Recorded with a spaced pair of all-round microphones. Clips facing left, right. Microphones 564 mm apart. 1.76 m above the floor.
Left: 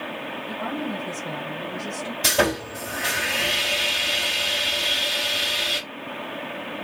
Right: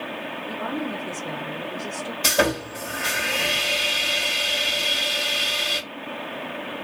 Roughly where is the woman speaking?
Left.